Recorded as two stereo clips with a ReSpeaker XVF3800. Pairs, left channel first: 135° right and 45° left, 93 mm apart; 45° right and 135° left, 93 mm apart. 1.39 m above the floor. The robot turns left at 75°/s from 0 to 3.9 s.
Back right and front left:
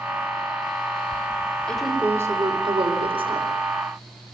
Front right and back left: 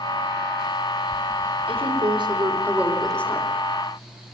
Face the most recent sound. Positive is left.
turn(degrees=-20)